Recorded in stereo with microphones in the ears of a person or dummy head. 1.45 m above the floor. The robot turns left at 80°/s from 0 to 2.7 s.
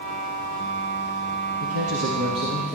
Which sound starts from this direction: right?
A man speaking, at 1.6 s.